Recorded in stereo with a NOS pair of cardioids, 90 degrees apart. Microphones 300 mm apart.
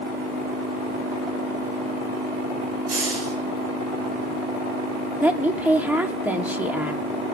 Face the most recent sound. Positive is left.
turn(degrees=-5)